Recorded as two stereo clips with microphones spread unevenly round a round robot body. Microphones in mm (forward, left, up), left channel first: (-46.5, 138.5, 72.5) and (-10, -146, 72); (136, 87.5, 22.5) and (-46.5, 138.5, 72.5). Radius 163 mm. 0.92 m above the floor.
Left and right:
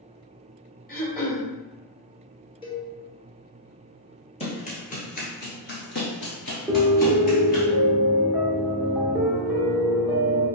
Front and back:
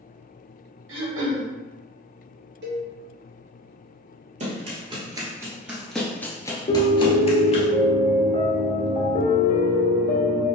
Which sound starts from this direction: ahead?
A piano, at 6.7 s.